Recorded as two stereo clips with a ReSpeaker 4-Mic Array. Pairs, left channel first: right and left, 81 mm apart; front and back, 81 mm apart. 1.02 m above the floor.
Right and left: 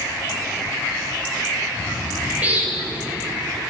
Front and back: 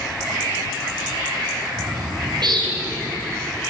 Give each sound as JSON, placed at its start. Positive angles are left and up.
{"t": 1.8, "sound": "a bird", "azimuth_deg": 160, "distance_m": 5.0}